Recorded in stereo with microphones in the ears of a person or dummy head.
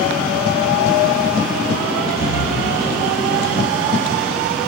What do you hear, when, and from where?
2.2 s breathing: 70° left (ahead or behind), 6.5 m